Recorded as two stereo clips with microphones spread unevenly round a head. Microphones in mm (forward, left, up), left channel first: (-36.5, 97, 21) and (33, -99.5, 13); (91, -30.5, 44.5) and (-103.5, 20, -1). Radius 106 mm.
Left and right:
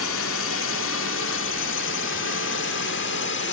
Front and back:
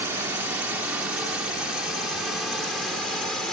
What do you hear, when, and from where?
0.0 s a drone: 85° left; by 3.5 s 75° left